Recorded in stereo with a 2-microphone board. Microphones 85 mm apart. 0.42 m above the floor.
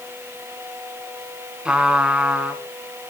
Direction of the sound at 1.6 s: 10° right (ahead or behind).